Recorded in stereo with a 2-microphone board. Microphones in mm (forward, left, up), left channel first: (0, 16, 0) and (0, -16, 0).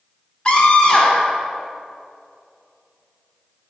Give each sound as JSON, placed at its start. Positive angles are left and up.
{"t": 0.5, "sound": "a scream", "side_deg": 30, "distance_m": 1.1}